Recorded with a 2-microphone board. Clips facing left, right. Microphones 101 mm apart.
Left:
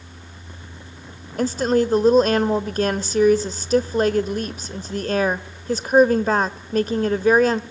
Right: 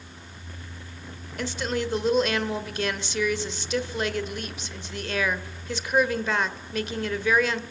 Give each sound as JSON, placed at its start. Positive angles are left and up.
{"t": 1.4, "sound": "a woman speaking", "side_deg": 40, "distance_m": 1.2}